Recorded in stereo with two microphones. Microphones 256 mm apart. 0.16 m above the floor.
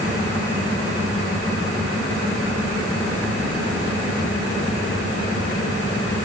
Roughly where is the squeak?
No squeak in this recording.